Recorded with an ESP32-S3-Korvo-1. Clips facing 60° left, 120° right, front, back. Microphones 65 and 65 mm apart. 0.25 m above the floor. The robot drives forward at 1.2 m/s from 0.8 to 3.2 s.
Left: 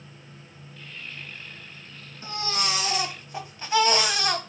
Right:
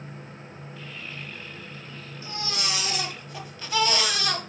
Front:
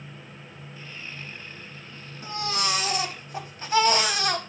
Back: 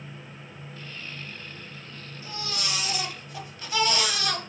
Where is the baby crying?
10° left, 2 m; by 4.4 s 20° left, 1.3 m.